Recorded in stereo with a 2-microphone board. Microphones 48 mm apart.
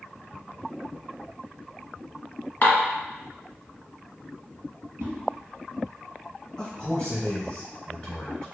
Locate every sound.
2.6 s dishes clattering: 40° left (ahead or behind), 0.8 m
5.0 s a whoosh: 65° right (ahead or behind), 1.3 m
6.6 s a man speaking: 10° left (ahead or behind), 1.2 m